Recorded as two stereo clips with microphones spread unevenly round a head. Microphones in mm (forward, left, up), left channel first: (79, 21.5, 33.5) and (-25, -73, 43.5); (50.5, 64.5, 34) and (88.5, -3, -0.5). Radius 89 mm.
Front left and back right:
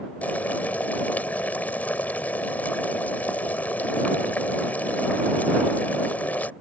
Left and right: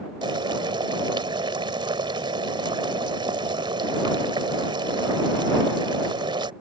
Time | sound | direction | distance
0.2 | boiling | 35° right | ?